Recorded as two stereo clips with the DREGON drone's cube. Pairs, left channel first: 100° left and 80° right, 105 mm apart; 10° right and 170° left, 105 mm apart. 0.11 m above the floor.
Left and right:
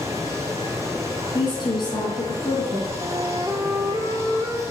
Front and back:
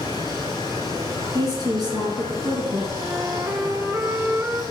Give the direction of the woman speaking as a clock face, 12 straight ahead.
8 o'clock.